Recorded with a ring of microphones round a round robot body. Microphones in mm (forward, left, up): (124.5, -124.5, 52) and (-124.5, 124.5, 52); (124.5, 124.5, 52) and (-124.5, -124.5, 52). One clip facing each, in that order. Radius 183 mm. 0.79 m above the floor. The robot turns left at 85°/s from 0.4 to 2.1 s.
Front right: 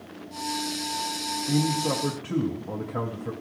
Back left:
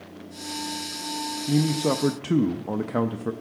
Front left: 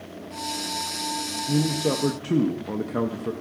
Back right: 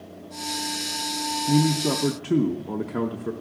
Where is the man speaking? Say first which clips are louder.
Back left 3 dB, back right 2 dB; 170° right, 0.6 m; by 3.3 s 135° left, 0.6 m.